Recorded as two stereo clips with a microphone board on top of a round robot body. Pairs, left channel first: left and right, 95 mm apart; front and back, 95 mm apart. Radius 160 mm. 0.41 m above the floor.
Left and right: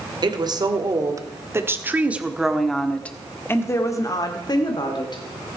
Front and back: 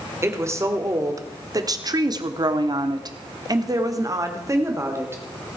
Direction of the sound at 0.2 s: 125° right.